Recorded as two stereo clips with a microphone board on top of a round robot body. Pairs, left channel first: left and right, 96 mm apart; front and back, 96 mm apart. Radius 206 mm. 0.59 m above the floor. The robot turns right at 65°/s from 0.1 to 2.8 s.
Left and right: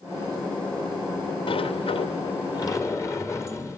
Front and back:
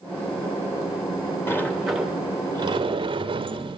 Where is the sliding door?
65° left, 2.5 m; by 3.8 s 150° left, 2.5 m.